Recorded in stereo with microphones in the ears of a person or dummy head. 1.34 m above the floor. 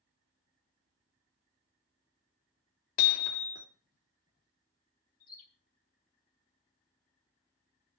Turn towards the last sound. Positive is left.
turn(degrees=45)  # may be behind; listen again after turning